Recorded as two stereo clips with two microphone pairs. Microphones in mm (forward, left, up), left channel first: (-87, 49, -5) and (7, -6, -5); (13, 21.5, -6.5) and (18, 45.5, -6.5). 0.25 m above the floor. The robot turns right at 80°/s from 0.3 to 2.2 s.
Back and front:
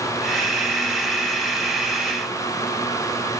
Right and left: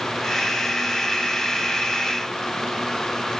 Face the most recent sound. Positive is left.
No sound to turn to.